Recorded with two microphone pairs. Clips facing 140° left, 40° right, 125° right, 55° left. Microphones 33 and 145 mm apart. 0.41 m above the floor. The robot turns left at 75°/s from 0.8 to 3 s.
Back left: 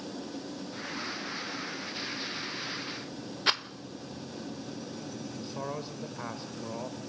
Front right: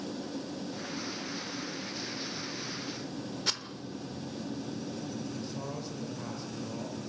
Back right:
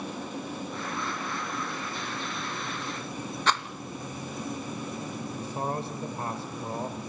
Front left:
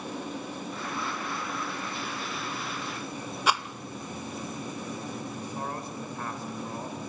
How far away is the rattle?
About 0.7 m.